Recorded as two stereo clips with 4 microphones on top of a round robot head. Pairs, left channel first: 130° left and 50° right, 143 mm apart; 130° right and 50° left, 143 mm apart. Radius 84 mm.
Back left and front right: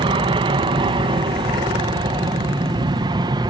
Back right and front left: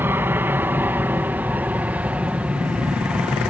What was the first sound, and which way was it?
An aircraft, 20° right.